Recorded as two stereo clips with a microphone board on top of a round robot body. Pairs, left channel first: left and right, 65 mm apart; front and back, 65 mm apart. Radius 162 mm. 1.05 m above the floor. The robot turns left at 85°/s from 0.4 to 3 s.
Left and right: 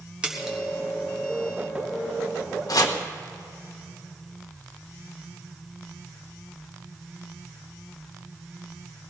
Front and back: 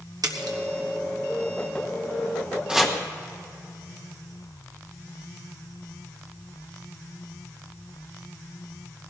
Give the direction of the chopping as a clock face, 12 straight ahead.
9 o'clock.